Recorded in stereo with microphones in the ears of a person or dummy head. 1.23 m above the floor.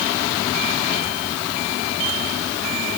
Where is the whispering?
No whispering in this recording.